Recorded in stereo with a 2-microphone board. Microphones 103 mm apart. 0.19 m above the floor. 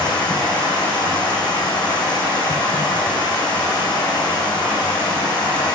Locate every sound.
0.0 s running water: 45° left (ahead or behind), 3.5 m